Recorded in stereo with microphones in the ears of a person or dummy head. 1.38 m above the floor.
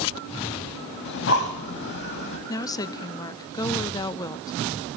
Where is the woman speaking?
15° left (ahead or behind), 0.5 m.